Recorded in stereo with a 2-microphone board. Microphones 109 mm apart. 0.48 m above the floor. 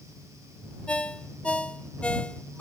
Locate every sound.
0.9 s a ringtone: 10° left (ahead or behind)